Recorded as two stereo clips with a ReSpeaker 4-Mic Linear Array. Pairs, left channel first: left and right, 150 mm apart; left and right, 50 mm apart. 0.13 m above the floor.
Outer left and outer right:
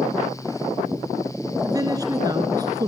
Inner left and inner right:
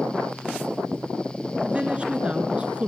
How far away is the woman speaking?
About 2 m.